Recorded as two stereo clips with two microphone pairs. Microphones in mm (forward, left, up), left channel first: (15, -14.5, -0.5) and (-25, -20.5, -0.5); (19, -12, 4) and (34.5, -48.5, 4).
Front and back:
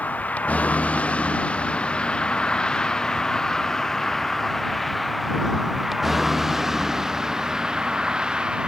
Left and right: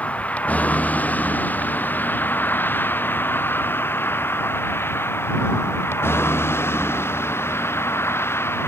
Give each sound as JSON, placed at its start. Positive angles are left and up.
{"t": 0.0, "sound": "a vehicle", "azimuth_deg": 60}